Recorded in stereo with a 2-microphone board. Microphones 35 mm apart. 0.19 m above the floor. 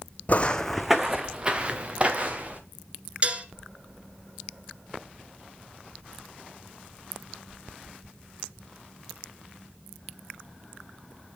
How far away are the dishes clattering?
About 1.4 m.